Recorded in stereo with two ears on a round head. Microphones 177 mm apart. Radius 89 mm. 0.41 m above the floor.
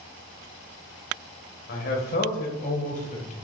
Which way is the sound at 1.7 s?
50° left (ahead or behind).